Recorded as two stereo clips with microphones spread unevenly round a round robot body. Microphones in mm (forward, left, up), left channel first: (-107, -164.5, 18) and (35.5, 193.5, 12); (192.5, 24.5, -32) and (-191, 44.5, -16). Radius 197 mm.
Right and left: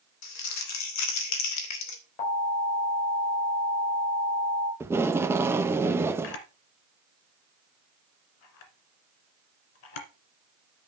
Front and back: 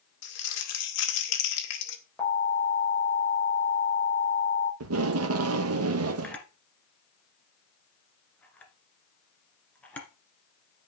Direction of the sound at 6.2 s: 90° right.